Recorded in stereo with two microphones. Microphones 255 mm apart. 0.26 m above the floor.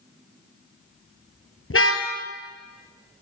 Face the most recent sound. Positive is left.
turn(degrees=60)  # may be behind; listen again after turning